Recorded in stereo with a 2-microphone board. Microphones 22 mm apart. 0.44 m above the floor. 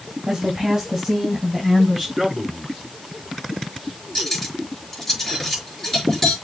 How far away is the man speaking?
About 5 m.